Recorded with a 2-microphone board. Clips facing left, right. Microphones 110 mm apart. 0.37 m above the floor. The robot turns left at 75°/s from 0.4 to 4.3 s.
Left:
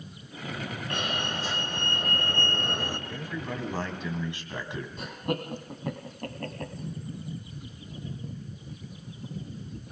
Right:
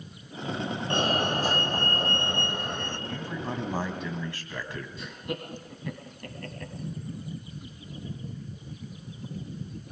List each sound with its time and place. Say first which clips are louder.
0.9 s a fire alarm: right 7 dB; 45° right, 3 m; by 3.0 s 160° left, 3 m
3.1 s a man speaking: right 1 dB; 110° right, 3.5 m; by 4.9 s 160° left, 3.5 m
5.0 s laughter: left 6 dB; 55° left (ahead or behind), 3 m